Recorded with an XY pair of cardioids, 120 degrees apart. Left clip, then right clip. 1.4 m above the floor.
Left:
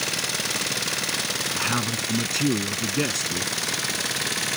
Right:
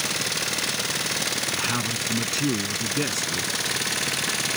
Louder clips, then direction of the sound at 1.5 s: Even; 15° left.